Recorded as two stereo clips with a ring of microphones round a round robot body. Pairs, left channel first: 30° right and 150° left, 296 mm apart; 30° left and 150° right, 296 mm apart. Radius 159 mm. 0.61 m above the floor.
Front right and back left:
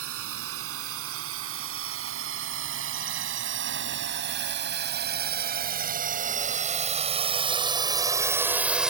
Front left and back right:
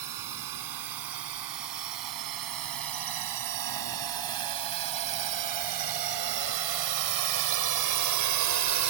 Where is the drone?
165° right; by 8.9 s 120° right.